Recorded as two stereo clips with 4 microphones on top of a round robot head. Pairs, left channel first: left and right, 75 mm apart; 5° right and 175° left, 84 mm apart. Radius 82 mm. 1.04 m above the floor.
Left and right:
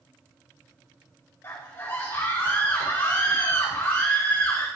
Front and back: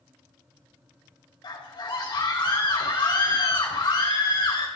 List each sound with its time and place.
1.4 s a scream: 25° left, 4.5 m